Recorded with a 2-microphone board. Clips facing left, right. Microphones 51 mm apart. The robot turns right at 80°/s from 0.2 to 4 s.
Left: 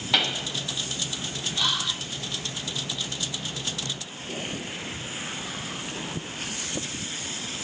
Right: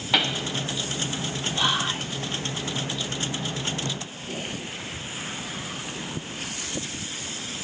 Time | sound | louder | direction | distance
0.1 | a pop | right 1 dB | 10° right (ahead or behind) | 1.1 m
1.6 | whispering | right 3 dB | 145° right | 1.1 m